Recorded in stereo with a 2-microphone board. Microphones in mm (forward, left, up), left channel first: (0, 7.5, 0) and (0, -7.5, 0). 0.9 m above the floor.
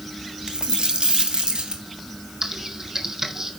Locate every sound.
0.5 s a dropped coin: 80° right, 2 m
2.4 s typing on a keyboard: 40° right (ahead or behind), 1.9 m